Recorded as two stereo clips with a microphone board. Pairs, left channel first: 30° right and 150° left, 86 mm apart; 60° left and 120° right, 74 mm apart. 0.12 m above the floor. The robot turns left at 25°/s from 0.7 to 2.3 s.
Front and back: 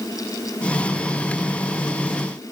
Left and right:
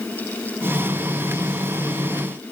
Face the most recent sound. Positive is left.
No sound to turn to.